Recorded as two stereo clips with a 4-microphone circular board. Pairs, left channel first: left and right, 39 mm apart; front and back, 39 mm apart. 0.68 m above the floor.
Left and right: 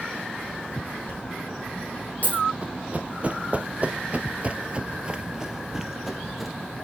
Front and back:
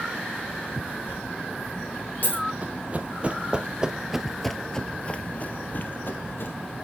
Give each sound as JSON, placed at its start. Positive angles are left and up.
{"t": 1.1, "sound": "a dropped coin", "azimuth_deg": 40, "distance_m": 4.5}
{"t": 2.6, "sound": "running footsteps", "azimuth_deg": -140, "distance_m": 1.3}